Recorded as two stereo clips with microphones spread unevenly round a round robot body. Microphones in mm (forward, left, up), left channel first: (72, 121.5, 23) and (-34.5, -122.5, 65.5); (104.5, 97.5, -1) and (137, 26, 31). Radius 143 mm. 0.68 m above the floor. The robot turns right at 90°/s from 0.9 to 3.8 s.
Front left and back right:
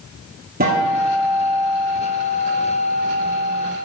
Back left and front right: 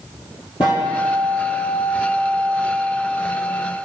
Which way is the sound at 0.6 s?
170° right.